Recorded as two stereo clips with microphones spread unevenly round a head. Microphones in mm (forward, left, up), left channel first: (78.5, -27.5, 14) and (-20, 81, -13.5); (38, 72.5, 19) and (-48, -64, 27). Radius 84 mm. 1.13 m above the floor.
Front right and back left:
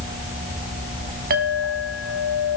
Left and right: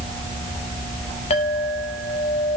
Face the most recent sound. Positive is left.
turn(degrees=110)